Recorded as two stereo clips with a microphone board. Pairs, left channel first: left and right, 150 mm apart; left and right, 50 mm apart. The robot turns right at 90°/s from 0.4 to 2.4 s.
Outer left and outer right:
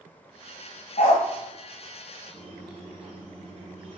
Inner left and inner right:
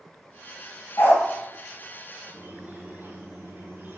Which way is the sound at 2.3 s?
60° right (ahead or behind).